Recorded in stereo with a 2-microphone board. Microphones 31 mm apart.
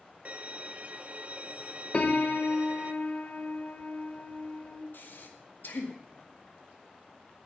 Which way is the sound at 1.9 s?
35° left (ahead or behind).